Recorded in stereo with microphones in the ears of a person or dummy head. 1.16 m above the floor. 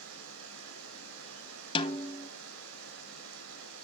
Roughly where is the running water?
Right.